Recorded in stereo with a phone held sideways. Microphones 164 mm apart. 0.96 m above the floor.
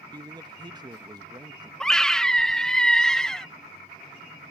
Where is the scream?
5° left (ahead or behind).